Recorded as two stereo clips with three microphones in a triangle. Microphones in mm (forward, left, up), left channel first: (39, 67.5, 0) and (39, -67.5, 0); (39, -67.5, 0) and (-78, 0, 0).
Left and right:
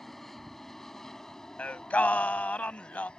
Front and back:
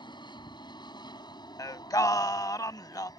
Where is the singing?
15° left.